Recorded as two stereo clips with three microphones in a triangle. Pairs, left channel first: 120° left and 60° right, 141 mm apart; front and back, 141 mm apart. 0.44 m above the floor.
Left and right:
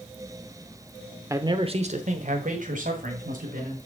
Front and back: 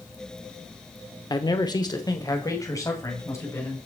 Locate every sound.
1.3 s a man speaking: 10° right, 0.9 m; by 3.8 s 70° right, 3.5 m